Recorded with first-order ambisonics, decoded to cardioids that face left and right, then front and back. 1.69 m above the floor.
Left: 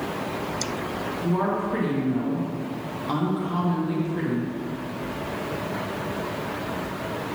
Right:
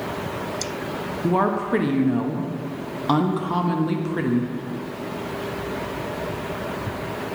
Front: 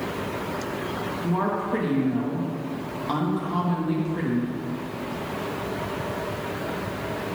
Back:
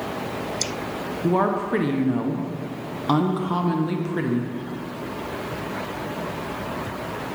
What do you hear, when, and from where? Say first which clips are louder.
1.2 s a woman speaking: right 5 dB, back 5 dB; 130° right, 0.5 m